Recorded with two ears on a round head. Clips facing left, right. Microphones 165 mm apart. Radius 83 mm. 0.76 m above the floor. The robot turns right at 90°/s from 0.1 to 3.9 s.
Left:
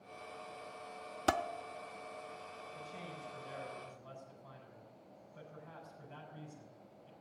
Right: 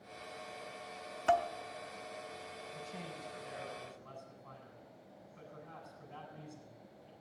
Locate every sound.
1.3 s dishes clattering: 45° left (ahead or behind), 0.5 m; by 1.5 s 60° left (ahead or behind), 0.5 m
2.7 s a man speaking: 25° right, 6.5 m; by 7.1 s 80° left, 6.5 m